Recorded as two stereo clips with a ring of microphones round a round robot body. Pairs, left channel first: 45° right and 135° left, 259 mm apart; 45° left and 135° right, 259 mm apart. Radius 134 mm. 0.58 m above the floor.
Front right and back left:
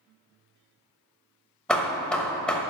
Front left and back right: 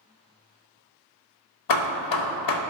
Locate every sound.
1.7 s hammering: 40° left, 0.8 m